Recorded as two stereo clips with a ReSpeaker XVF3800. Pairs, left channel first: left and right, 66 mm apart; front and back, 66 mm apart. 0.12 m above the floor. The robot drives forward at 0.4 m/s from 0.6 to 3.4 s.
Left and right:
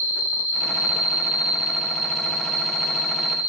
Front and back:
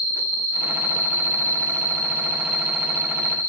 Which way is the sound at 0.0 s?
140° right.